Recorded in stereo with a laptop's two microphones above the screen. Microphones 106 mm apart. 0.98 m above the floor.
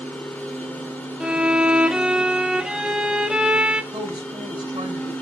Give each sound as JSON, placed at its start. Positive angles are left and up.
{"t": 0.0, "sound": "a machine running", "side_deg": 20, "distance_m": 4.5}
{"t": 1.2, "sound": "a violin", "side_deg": -5, "distance_m": 1.2}
{"t": 3.9, "sound": "a woman speaking", "side_deg": -45, "distance_m": 4.0}